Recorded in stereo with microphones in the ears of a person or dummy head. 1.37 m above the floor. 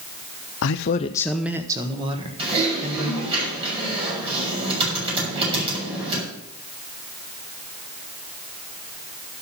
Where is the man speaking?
70° left (ahead or behind), 0.6 m; by 3.4 s 35° right (ahead or behind), 2.5 m.